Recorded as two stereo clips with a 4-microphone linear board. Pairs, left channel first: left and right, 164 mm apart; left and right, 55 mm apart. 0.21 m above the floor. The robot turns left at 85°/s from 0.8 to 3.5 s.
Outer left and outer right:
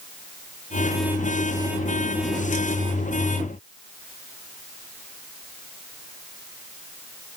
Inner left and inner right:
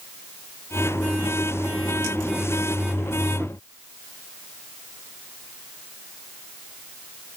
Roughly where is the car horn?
I don't hear a car horn.